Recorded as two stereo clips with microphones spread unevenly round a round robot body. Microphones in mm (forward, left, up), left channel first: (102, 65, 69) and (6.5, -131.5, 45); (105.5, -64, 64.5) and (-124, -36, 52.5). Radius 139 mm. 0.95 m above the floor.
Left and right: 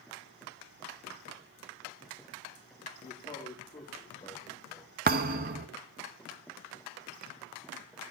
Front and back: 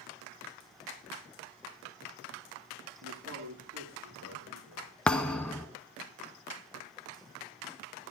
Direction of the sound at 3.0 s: 135° left.